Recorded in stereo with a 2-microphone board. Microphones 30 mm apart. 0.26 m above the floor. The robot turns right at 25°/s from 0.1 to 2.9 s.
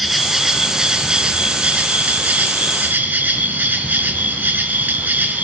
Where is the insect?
175° right, 2 m; by 5.4 s 105° right, 2 m.